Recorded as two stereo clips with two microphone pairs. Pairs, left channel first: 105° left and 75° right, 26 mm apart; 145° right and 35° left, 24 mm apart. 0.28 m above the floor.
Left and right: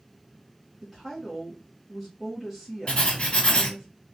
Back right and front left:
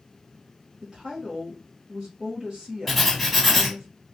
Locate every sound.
0.8 s a woman speaking: 5° left, 1.4 m
2.9 s writing: 130° left, 1.4 m